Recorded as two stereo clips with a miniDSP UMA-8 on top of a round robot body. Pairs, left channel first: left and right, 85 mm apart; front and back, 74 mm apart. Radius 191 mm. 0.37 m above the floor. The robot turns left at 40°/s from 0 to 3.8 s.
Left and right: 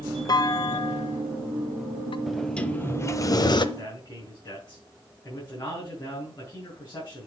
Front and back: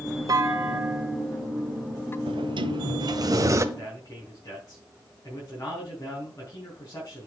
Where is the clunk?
135° left, 0.6 m; by 2.2 s 65° left, 0.6 m.